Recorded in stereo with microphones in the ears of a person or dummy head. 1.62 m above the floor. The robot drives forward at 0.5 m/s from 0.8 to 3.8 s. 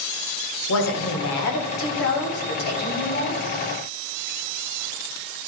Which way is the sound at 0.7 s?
75° left (ahead or behind).